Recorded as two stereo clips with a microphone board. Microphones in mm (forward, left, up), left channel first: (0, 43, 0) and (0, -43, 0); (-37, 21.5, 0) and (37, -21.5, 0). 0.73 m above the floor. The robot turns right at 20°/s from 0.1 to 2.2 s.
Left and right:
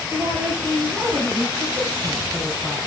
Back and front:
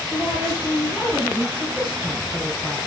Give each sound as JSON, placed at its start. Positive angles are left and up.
{"t": 0.1, "sound": "a woman speaking", "azimuth_deg": -155, "distance_m": 5.0}